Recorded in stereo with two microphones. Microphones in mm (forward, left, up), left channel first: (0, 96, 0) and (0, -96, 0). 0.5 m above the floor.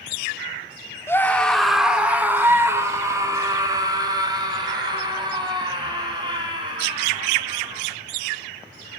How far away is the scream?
About 1.0 m.